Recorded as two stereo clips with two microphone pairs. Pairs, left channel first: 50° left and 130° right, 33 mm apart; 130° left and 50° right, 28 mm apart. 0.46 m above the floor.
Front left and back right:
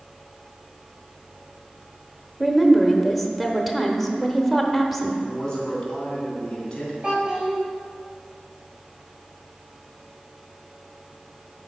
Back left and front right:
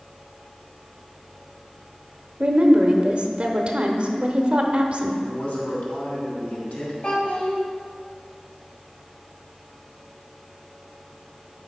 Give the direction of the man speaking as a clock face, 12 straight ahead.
8 o'clock.